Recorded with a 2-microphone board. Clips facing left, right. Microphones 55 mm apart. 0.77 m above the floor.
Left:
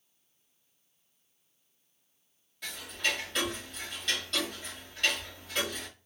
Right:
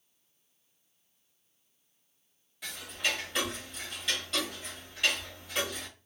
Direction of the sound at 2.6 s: 5° right (ahead or behind).